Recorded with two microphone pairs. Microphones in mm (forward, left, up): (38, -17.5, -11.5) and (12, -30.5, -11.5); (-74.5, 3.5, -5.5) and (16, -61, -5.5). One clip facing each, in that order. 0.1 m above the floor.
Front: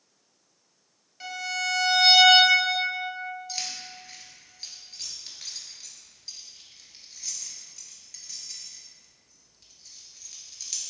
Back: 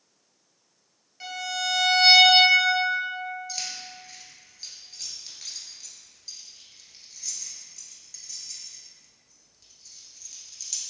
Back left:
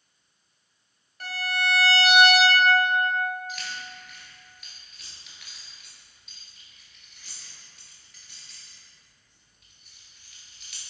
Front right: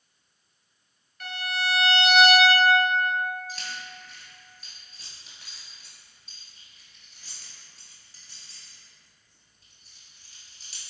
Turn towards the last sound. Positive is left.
turn(degrees=-35)